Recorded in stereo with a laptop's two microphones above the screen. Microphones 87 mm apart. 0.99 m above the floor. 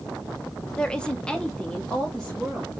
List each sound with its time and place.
0.8 s a woman speaking: 10° left (ahead or behind), 0.6 m; by 2.7 s 5° left (ahead or behind), 1.2 m